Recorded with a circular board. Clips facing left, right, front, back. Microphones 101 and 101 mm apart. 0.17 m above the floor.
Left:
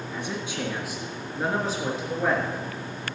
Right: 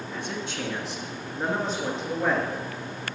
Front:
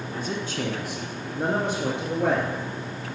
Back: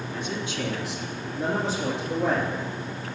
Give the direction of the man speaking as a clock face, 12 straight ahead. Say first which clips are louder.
Left 1 dB, front 2 dB; 11 o'clock.